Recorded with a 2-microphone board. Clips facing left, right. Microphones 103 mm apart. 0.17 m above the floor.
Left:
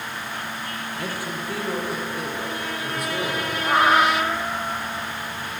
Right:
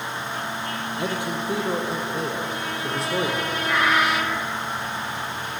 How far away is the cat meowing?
About 2.5 m.